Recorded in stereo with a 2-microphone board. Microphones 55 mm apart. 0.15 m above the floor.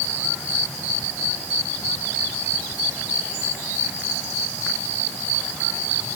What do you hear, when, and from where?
Only background noise.